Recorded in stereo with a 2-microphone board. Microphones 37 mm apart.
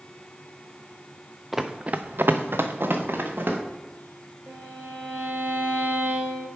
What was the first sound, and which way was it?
Running footsteps, centre (ahead or behind).